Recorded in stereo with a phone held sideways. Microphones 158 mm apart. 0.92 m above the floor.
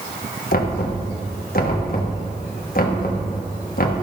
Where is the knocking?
65° left (ahead or behind), 1.0 m.